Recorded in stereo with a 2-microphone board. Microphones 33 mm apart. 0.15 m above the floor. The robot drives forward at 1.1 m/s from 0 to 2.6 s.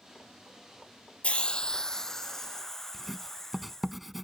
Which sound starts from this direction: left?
A hiss, at 1.2 s.